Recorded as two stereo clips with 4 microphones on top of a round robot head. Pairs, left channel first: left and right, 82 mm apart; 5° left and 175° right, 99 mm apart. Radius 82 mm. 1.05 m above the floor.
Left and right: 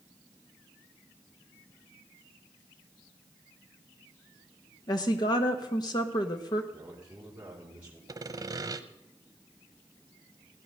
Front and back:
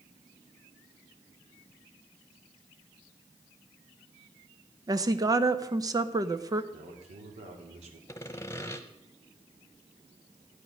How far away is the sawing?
About 1.0 m.